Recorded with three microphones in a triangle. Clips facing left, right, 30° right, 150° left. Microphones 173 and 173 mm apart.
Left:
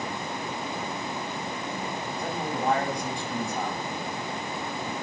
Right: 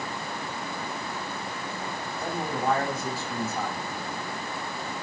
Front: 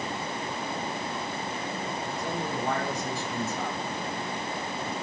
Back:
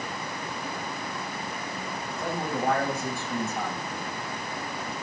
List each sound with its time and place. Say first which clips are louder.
2.2 s a man speaking: right 1 dB, back 4 dB; 175° right, 9 m